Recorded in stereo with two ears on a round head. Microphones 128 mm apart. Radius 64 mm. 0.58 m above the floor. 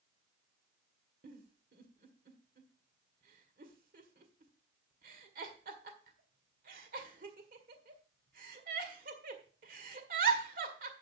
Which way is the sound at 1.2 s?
65° right (ahead or behind).